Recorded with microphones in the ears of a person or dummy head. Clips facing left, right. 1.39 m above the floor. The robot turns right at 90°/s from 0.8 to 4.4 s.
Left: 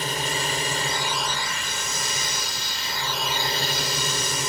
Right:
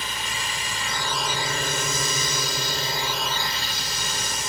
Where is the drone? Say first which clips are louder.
Left 6 dB; 145° left; by 4.5 s 110° left.